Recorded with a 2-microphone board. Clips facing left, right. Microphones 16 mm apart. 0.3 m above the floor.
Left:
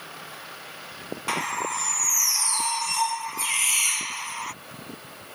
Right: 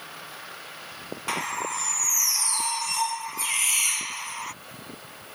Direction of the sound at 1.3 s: 5° left (ahead or behind).